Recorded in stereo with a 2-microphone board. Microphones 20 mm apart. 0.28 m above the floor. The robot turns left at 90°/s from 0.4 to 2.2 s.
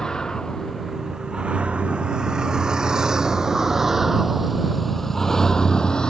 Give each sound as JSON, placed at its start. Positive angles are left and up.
{"t": 0.0, "sound": "a vehicle", "side_deg": 35}